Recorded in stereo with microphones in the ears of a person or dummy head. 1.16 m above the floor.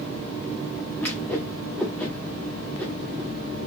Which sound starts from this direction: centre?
A whoosh, at 1.0 s.